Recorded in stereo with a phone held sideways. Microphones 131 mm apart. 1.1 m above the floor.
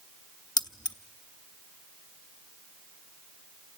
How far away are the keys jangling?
About 0.8 m.